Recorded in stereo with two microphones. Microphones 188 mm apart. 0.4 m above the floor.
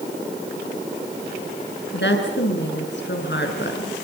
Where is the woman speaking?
75° left (ahead or behind), 5.5 m.